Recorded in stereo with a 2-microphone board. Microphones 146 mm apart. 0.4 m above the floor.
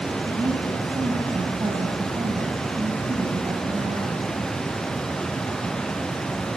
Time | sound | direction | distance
0.3 | a woman speaking | 30° right (ahead or behind) | 2.5 m